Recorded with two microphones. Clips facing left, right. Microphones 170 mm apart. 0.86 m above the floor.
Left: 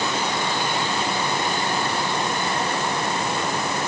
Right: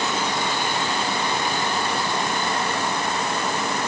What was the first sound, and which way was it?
Only background noise.